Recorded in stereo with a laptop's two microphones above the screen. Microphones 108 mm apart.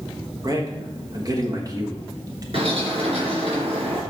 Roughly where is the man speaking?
Right.